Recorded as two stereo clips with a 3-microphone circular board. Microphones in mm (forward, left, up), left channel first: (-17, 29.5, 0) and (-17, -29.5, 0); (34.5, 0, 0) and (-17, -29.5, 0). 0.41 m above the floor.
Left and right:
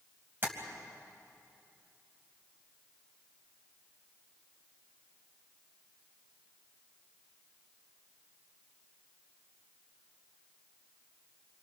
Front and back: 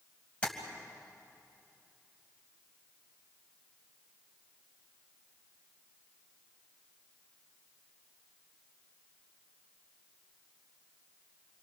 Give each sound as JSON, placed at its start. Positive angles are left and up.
{"t": 0.4, "sound": "tapping", "azimuth_deg": -40, "distance_m": 2.5}